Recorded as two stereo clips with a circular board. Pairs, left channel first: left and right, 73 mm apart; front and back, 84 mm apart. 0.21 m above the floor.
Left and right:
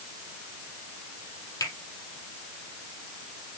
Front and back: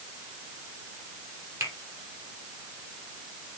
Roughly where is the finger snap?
Behind left.